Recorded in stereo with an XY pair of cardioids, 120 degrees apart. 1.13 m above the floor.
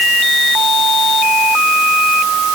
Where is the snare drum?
No snare drum in this recording.